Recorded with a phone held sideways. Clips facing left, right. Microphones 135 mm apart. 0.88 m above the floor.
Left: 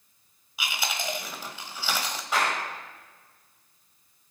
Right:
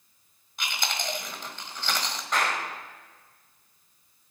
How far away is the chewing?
About 1.4 m.